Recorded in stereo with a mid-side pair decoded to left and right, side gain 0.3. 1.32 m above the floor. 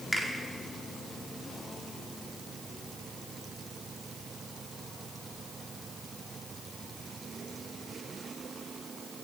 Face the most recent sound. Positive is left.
turn(degrees=10)